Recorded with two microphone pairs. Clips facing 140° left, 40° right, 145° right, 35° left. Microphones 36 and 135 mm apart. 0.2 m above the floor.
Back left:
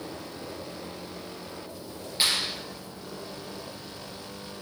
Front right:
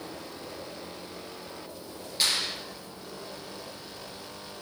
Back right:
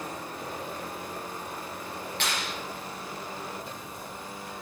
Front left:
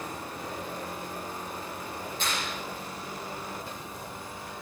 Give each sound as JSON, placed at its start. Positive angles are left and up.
{"t": 2.2, "sound": "a clap", "azimuth_deg": -150, "distance_m": 5.5}